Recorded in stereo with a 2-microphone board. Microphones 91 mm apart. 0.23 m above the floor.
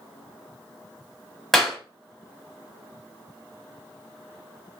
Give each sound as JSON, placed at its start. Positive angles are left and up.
{"t": 1.5, "sound": "a clap", "side_deg": 5, "distance_m": 0.9}